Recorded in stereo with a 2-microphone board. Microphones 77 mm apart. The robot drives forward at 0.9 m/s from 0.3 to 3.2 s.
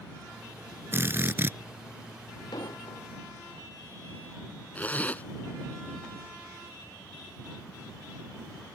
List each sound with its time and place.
0.9 s a drill: 30° right (ahead or behind); by 1.6 s 25° right (ahead or behind)
2.5 s an explosion: 65° left (ahead or behind)
4.8 s a zipper: 20° left (ahead or behind)